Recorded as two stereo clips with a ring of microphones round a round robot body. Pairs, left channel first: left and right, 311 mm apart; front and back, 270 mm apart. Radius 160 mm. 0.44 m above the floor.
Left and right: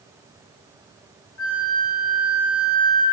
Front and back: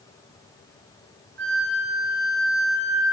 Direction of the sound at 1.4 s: 135° left.